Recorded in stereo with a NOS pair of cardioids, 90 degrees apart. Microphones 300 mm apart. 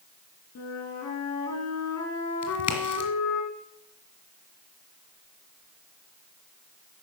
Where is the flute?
65° left, 3 m.